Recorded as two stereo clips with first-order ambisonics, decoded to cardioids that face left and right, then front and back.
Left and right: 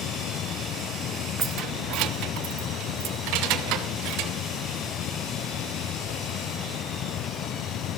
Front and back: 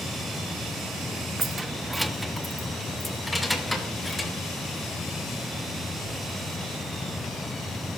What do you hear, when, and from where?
1.4 s keys jangling: 115° right, 0.5 m; by 4.3 s 85° right, 3 m